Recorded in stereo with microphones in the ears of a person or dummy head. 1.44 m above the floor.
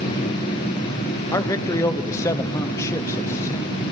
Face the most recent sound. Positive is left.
turn(degrees=15)  # may be behind; listen again after turning